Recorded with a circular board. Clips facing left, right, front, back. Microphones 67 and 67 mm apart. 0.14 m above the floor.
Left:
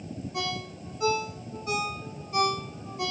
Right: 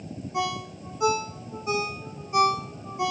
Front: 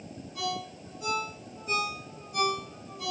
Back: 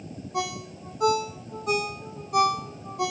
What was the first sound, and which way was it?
A ringtone, 160° right.